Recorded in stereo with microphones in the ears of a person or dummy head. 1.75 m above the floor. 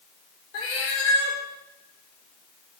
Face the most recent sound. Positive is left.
turn(degrees=55)  # may be behind; listen again after turning